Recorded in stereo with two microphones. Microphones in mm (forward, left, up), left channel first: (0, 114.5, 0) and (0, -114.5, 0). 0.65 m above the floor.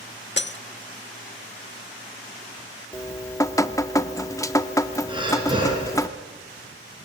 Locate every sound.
0.4 s breaking glass: 50° left (ahead or behind), 0.6 m
2.9 s dripping: 15° left (ahead or behind), 0.7 m
5.1 s breathing: 20° right (ahead or behind), 5 m